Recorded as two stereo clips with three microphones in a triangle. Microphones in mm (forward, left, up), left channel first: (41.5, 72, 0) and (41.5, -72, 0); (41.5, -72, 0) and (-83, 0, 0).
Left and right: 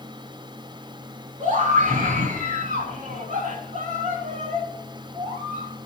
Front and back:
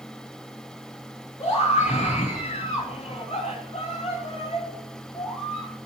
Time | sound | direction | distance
1.4 | a scream | 65° right | 3.5 m